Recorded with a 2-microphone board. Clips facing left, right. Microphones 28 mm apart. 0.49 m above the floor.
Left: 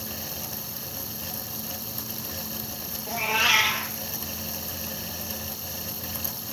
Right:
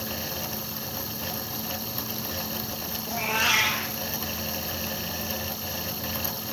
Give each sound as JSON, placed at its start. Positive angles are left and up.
{"t": 3.1, "sound": "a cat meowing", "side_deg": 15, "distance_m": 1.8}